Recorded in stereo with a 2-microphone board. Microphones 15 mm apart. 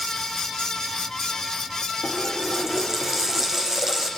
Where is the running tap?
25° right (ahead or behind), 6 m.